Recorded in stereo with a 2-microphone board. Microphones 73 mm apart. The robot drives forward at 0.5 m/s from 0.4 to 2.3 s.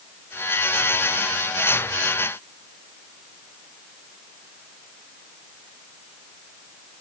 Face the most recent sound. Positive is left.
No sound to turn to.